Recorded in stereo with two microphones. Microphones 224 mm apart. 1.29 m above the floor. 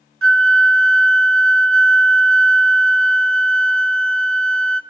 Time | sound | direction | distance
0.2 | a flute | 70° right (ahead or behind) | 0.5 m